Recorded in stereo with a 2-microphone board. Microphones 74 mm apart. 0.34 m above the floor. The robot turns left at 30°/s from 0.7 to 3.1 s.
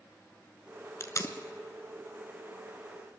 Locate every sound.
1.0 s tape being pulled: 40° left (ahead or behind), 0.9 m; by 1.3 s 50° left (ahead or behind), 0.9 m